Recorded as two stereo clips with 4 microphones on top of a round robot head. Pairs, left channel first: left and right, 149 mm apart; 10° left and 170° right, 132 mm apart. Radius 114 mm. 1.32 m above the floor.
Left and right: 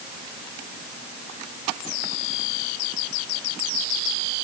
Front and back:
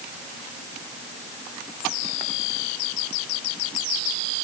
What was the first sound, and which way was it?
Only background noise.